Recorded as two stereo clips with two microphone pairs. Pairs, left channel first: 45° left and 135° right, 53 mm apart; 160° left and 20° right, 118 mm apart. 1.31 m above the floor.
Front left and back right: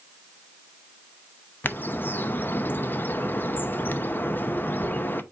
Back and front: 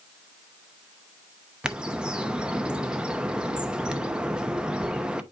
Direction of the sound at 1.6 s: 55° left.